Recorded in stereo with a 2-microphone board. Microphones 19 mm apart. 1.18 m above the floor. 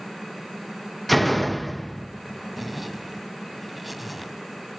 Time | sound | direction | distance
1.1 | a door slam | 5° left (ahead or behind) | 0.7 m
2.6 | a zipper | 5° right (ahead or behind) | 1.6 m